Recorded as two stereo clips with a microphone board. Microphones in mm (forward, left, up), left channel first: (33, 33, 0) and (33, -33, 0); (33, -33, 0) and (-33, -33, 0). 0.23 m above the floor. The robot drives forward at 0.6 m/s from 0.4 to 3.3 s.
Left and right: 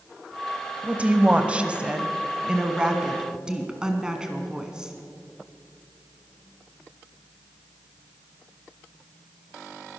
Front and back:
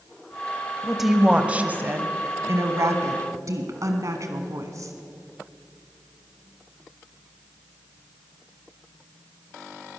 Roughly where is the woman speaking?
Right.